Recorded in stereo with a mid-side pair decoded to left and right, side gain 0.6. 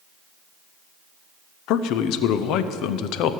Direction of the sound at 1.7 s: 65° left.